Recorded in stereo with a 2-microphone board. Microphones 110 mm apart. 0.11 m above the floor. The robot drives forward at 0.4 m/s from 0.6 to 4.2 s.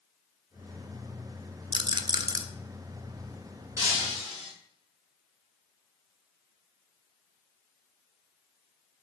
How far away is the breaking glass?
About 4 m.